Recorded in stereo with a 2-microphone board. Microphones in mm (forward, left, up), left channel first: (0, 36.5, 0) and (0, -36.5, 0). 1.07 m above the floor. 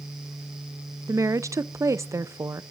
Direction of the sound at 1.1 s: 45° right (ahead or behind).